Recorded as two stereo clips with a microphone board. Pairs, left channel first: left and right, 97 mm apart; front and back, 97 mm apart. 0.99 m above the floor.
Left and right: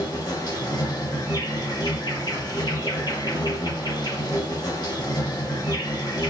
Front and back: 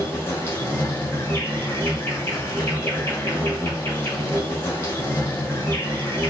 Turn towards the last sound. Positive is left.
turn(degrees=60)